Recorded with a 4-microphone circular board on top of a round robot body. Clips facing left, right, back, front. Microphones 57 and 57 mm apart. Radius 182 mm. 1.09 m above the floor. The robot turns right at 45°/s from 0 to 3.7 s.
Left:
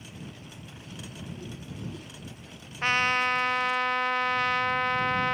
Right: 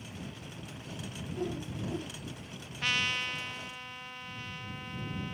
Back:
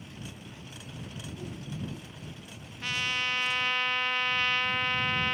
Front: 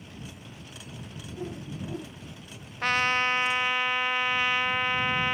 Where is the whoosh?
65° right; by 2.2 s 25° right.